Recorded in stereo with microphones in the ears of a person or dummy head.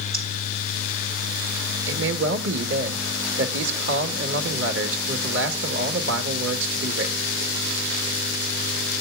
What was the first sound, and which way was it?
Breathing, 40° right (ahead or behind).